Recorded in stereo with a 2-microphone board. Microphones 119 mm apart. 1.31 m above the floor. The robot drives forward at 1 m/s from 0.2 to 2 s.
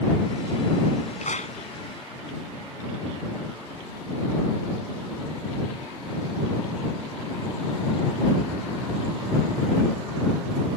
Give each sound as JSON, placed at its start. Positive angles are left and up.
{"t": 1.2, "sound": "a clap", "side_deg": 85}